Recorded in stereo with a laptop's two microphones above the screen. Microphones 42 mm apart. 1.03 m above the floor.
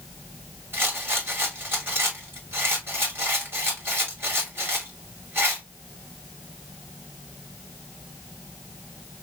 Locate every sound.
0.7 s a rattle: 75° right (ahead or behind), 1.9 m